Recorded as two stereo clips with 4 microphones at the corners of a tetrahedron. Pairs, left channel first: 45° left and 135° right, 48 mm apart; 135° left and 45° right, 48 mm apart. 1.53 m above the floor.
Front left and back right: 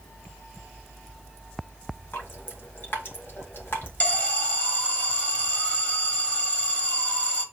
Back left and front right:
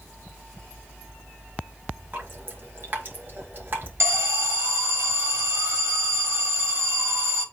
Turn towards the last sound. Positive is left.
turn(degrees=-10)